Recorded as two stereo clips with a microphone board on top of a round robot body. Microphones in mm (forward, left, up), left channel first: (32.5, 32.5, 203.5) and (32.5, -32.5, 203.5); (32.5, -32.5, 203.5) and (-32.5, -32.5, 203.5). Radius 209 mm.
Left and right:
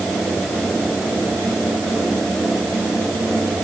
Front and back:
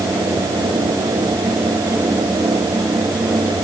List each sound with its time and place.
Only background noise.